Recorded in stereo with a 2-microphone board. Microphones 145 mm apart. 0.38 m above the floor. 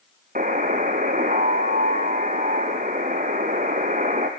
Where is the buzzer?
60° right (ahead or behind), 2.5 m.